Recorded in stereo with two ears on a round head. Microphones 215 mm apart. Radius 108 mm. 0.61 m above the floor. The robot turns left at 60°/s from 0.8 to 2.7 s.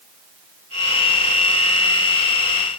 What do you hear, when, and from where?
Only background noise.